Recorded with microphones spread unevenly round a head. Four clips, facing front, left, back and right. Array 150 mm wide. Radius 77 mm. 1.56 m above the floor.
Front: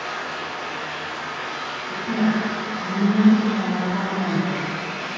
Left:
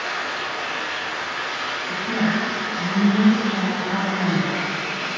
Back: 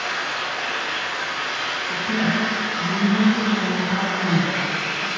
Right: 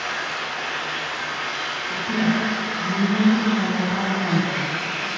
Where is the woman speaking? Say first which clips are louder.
Right 1 dB, front 2 dB; 75° left, 1.3 m.